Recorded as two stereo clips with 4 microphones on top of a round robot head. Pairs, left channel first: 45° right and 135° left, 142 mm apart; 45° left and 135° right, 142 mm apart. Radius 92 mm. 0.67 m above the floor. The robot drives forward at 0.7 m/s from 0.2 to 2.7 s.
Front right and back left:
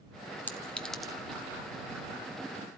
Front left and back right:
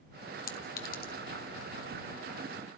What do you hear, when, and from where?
0.5 s a clink: 35° left, 1.5 m; by 1.1 s 45° left, 1.1 m